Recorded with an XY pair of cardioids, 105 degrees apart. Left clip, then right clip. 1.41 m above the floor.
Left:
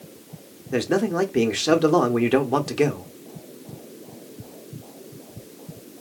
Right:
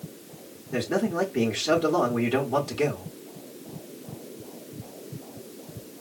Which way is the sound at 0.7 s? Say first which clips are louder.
Left 4 dB; 50° left.